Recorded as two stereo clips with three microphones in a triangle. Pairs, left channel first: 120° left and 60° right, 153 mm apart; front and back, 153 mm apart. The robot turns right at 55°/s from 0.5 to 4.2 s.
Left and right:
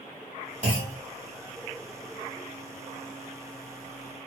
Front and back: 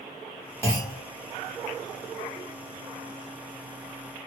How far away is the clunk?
About 1.8 m.